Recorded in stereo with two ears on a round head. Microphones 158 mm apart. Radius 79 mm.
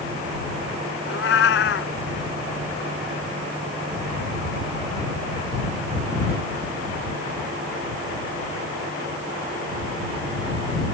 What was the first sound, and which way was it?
A cat meowing, 70° left (ahead or behind).